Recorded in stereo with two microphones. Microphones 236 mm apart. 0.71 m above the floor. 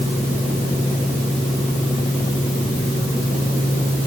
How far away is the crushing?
No crushing in this recording.